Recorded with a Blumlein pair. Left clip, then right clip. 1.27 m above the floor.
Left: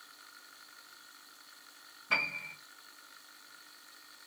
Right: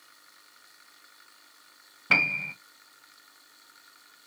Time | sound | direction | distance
2.1 | a piano | 55° right | 0.6 m